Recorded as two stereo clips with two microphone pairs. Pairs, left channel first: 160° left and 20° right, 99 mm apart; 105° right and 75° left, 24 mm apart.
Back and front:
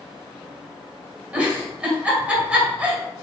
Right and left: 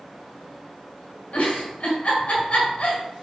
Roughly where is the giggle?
Right.